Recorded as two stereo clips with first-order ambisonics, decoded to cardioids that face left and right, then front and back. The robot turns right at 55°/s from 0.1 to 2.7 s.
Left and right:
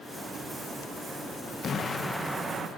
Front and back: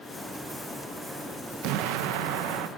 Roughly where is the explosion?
Behind left.